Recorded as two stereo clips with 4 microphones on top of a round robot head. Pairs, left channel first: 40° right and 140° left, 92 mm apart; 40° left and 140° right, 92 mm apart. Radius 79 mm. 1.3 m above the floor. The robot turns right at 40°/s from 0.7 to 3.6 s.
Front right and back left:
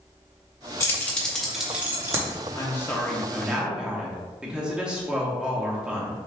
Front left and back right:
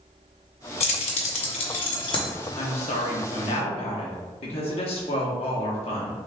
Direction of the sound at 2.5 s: 20° left.